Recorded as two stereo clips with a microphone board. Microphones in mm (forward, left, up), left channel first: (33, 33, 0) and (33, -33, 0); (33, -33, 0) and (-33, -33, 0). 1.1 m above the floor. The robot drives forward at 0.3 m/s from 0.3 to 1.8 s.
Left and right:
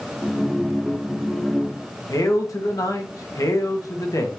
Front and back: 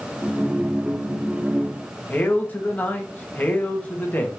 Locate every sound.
2.1 s a man speaking: 65° left, 1.1 m